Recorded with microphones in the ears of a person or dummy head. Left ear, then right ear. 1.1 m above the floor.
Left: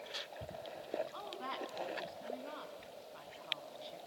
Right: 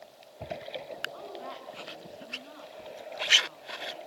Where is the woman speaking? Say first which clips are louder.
Right 2 dB; 25° left (ahead or behind), 8 m.